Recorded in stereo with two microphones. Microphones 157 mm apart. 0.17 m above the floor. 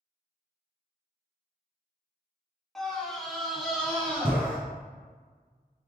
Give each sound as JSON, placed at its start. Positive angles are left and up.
{"t": 2.8, "sound": "a scream", "side_deg": 0, "distance_m": 1.2}